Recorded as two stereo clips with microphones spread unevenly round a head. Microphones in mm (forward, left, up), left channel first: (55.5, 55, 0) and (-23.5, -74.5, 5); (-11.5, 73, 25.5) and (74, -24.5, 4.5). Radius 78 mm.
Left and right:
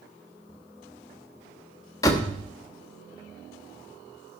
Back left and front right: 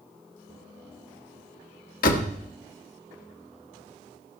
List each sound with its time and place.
2.0 s a door slam: 130° left, 1.2 m